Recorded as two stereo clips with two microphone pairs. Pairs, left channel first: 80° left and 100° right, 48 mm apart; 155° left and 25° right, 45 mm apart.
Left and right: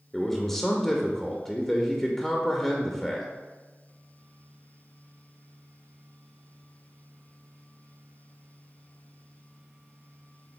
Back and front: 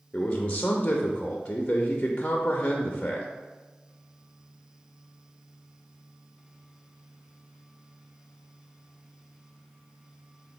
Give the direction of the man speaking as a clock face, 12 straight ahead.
7 o'clock.